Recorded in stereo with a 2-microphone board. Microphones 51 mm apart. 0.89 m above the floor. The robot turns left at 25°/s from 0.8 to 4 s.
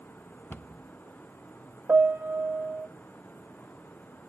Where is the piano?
45° right (ahead or behind), 0.7 m; by 2.9 s 35° right (ahead or behind), 0.7 m.